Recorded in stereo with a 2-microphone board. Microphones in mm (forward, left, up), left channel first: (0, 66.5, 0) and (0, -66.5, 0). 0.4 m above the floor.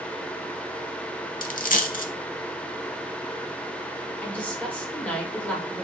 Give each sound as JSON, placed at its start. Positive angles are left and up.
{"t": 1.4, "sound": "a dropped coin", "side_deg": 70, "distance_m": 0.5}
{"t": 4.2, "sound": "a woman speaking", "side_deg": 10, "distance_m": 1.2}